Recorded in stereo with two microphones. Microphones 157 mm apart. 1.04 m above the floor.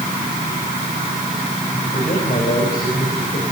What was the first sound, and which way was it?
A man speaking, 65° left (ahead or behind).